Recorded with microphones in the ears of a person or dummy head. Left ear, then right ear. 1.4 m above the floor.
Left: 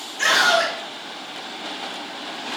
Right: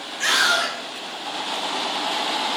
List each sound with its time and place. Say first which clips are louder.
0.2 s a scream: left 2 dB; 55° left (ahead or behind), 1.5 m